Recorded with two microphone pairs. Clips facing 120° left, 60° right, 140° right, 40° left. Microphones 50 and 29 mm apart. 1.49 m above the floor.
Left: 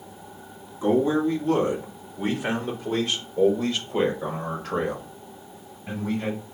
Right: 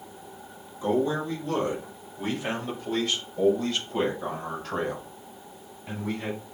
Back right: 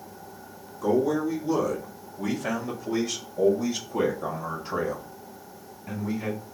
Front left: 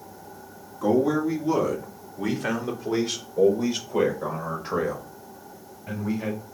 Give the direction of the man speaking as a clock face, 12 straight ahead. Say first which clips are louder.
Left 4 dB, front left 2 dB; 10 o'clock.